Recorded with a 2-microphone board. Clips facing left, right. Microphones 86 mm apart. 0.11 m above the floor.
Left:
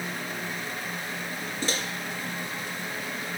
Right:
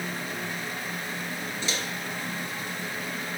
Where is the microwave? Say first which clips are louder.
Left 3 dB; 45° left (ahead or behind), 1.1 m.